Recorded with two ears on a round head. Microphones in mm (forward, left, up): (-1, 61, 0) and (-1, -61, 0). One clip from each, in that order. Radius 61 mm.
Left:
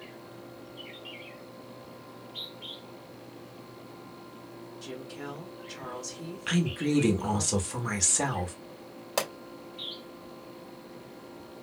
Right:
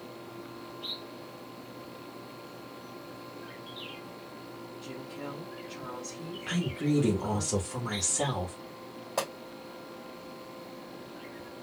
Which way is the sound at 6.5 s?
45° left (ahead or behind).